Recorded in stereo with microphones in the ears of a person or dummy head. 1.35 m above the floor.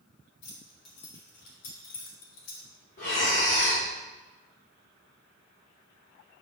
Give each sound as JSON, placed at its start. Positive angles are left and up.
{"t": 0.4, "sound": "keys jangling", "side_deg": 60, "distance_m": 3.0}
{"t": 3.0, "sound": "breathing", "side_deg": 55, "distance_m": 2.0}